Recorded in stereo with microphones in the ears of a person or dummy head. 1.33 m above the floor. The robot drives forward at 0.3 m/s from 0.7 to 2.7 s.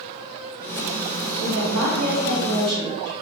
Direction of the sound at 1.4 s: 75° right (ahead or behind).